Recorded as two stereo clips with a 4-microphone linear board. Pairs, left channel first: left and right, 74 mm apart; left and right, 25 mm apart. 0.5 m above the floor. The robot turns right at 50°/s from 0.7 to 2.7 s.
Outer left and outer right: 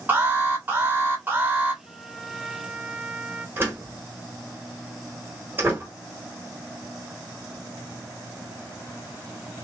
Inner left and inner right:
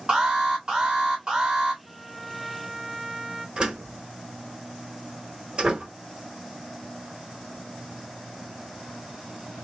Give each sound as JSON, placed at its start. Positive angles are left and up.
{"t": 0.1, "sound": "an alarm", "side_deg": -25, "distance_m": 1.5}
{"t": 1.8, "sound": "a trumpet", "azimuth_deg": 145, "distance_m": 0.7}
{"t": 3.6, "sound": "a door slam", "side_deg": -30, "distance_m": 1.3}